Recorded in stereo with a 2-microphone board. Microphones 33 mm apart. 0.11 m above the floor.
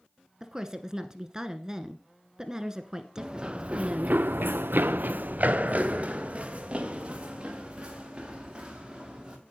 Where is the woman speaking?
20° right (ahead or behind), 1.1 m.